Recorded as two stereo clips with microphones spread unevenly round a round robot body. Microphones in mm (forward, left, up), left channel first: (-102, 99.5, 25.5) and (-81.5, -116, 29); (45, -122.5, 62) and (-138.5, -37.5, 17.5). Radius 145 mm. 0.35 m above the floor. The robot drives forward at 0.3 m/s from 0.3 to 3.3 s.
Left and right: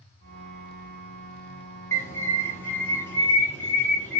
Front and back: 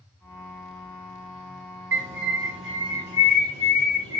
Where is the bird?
175° left, 0.9 m.